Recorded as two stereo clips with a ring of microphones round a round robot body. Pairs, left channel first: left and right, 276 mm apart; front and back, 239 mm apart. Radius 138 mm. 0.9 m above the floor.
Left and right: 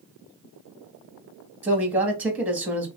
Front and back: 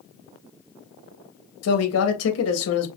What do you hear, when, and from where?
1.6 s a man speaking: 5° right, 1.7 m